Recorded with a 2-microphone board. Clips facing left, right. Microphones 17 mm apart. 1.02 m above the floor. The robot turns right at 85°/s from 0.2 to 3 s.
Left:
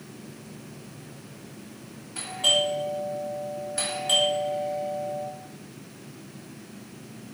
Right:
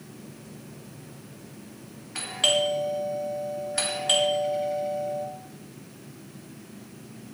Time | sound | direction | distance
2.1 | a doorbell | 70° right (ahead or behind) | 2.5 m